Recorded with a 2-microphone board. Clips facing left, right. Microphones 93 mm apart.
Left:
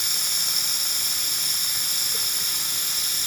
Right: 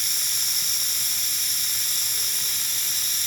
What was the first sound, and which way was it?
Running water, 65° left (ahead or behind).